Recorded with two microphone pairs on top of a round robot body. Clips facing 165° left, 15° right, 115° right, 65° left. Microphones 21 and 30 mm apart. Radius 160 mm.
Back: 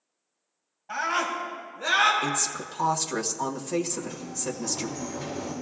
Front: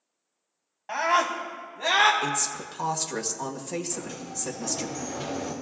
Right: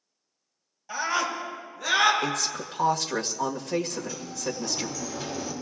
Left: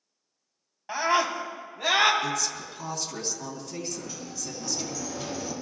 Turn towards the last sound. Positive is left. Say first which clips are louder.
# back 1 dB, right 3 dB
turn(degrees=-30)